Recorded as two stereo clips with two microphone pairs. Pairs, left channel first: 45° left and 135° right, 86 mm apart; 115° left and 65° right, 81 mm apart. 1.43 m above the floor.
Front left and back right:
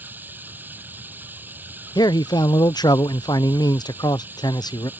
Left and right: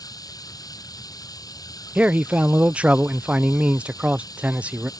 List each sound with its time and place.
0.0 s running water: 155° left
1.9 s a man speaking: 10° left